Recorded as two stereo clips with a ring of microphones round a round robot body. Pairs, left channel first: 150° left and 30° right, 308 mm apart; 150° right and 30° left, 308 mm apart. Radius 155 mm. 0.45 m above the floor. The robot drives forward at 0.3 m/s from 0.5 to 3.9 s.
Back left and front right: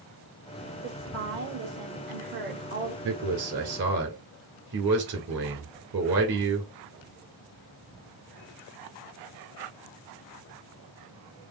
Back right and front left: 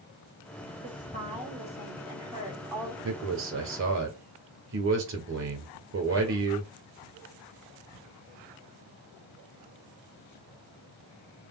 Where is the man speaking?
5° right, 2 m.